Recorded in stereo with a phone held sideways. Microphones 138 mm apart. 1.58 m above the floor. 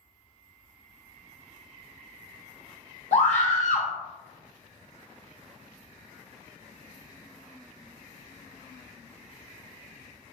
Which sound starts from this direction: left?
A scream, at 3.1 s.